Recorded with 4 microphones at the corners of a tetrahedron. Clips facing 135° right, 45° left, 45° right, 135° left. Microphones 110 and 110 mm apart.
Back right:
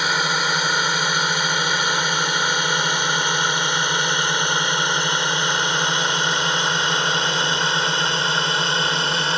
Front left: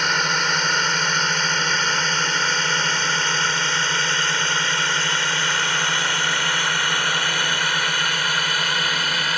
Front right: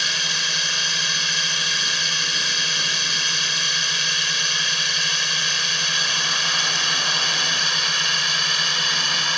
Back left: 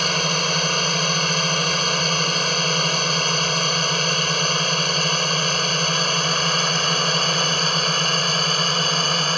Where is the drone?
145° left; by 9.4 s 170° left.